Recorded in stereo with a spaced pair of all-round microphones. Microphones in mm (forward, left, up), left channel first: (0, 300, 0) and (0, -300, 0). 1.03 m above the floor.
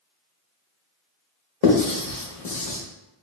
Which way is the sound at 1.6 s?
70° left (ahead or behind).